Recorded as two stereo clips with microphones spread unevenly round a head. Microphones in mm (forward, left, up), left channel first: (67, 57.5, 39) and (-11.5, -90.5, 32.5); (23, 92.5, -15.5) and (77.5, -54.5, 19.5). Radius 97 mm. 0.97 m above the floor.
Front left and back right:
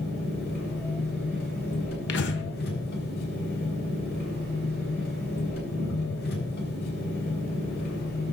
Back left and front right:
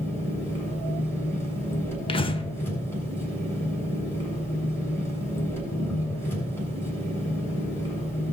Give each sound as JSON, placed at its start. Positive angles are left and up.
{"t": 0.0, "sound": "an engine running", "azimuth_deg": 35, "distance_m": 6.5}
{"t": 2.1, "sound": "breathing", "azimuth_deg": 50, "distance_m": 1.3}